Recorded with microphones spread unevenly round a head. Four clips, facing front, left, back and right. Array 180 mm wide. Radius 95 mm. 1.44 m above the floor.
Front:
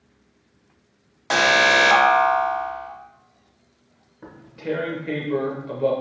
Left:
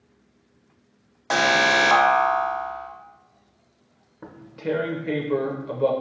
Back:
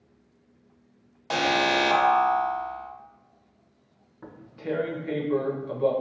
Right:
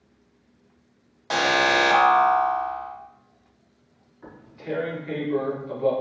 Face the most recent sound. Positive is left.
turn(degrees=90)